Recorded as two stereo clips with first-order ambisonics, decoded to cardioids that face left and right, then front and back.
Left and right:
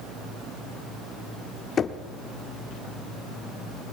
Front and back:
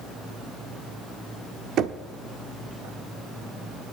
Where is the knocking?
145° left, 0.7 m.